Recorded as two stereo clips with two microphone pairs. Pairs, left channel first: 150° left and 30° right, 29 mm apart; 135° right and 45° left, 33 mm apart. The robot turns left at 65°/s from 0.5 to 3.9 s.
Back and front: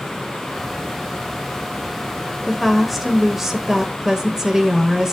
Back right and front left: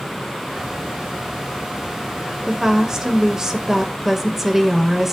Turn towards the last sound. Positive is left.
turn(degrees=-5)